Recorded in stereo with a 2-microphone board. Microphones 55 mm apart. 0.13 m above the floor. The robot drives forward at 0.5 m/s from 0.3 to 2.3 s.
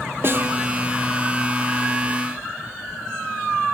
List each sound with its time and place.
0.2 s a snare drum: 45° right (ahead or behind), 1.0 m; by 0.6 s 40° right (ahead or behind), 1.1 m